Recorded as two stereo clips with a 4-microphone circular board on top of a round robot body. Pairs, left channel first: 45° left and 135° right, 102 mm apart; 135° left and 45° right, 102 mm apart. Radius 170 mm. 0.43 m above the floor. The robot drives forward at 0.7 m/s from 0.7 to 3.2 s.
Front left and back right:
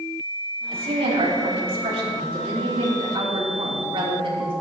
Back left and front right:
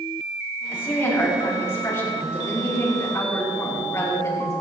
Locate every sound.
0.7 s a woman speaking: 155° right, 4 m; by 4.5 s 165° right, 6 m